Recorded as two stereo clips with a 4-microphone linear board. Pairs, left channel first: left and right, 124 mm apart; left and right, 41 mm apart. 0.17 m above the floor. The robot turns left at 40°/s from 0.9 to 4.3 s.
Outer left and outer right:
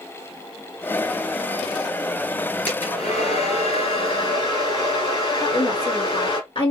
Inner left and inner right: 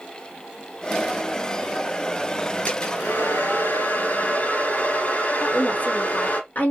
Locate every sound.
2.7 s a hair dryer: 120° left, 3 m; by 6.4 s 55° left, 3 m
5.4 s a woman speaking: 50° left (ahead or behind), 3 m